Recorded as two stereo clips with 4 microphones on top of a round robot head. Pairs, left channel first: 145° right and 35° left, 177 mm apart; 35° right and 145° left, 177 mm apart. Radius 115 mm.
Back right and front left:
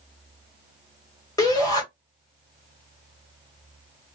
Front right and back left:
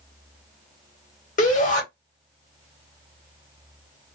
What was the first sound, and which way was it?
A shout, 75° right.